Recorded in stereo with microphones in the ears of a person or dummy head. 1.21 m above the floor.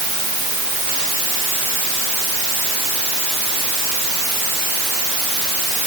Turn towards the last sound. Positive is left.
No sound to turn to.